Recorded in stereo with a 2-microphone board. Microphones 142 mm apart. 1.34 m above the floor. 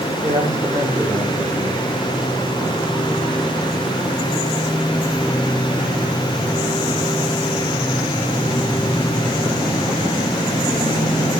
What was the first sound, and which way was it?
A man speaking, 20° right (ahead or behind).